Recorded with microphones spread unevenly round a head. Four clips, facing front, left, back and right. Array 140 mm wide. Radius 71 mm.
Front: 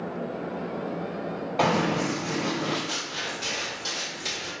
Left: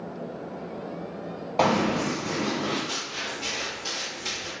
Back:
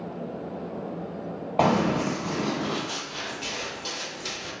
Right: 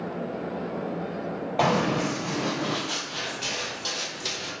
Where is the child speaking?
No child speaking in this recording.